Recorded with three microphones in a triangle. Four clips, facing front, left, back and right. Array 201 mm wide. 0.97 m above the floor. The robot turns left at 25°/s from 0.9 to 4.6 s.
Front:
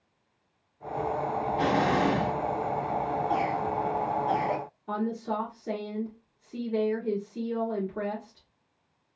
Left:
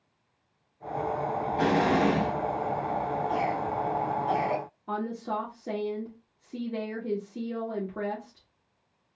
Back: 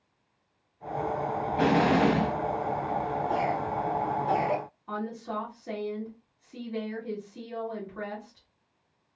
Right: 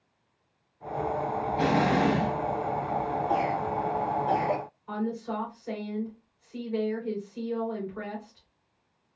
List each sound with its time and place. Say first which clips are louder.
1.6 s an explosion: even, back 3 dB; 170° right, 0.9 m; by 2.3 s 170° left, 0.9 m
3.3 s a cough: right 1 dB, front 1 dB; 105° right, 1.4 m; by 4.6 s 140° right, 1.4 m
4.9 s a woman speaking: even, front 5 dB; 65° left, 1.8 m